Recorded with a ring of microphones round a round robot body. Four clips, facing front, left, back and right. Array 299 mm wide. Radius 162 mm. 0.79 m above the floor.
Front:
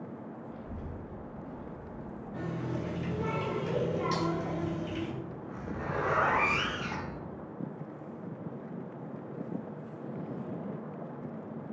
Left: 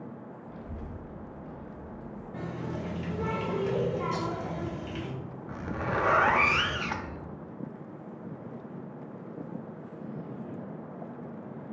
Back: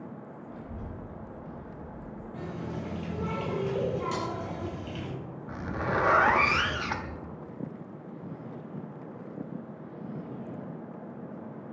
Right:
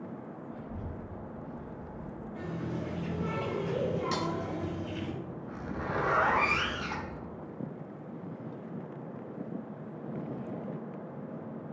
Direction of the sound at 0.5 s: 95° left.